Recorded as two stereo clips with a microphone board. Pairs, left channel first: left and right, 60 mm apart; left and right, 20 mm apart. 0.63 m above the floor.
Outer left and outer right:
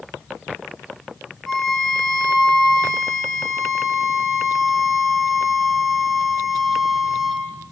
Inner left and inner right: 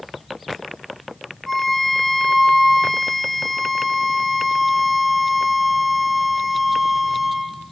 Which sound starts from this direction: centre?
A violin, at 1.5 s.